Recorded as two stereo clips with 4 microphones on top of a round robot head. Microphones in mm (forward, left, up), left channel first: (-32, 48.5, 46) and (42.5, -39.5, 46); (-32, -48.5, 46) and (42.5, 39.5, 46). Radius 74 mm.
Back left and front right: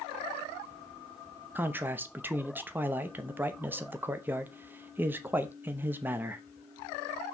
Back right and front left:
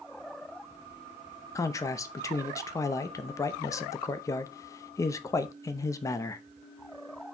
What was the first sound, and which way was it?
A man speaking, 105° right.